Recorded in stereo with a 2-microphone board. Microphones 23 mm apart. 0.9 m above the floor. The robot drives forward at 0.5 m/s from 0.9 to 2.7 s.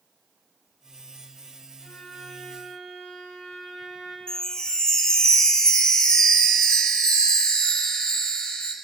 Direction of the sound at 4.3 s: 25° left (ahead or behind).